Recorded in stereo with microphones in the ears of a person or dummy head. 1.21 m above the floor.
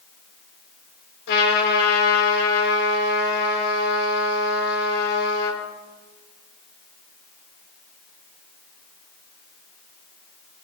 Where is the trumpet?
60° left (ahead or behind), 5 m.